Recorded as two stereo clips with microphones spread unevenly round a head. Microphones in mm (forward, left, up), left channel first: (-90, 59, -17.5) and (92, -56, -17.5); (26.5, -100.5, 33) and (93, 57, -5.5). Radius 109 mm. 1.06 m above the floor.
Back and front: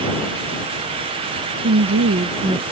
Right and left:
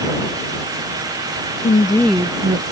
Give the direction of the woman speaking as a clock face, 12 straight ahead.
2 o'clock.